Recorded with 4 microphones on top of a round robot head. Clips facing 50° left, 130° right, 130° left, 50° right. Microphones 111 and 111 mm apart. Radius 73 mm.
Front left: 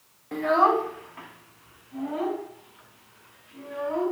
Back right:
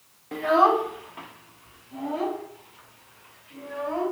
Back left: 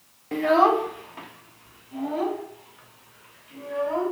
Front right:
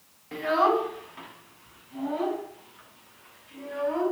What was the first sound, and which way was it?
A child speaking, 145° left.